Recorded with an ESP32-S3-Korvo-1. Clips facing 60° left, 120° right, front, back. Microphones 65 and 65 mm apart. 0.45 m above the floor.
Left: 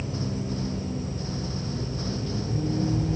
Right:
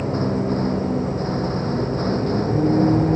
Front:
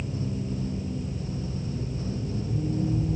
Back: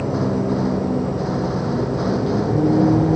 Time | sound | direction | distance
0.0 | a vehicle | 160° right | ?